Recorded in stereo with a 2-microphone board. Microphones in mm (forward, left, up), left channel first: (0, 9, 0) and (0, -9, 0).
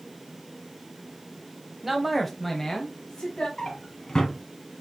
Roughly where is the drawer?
Left.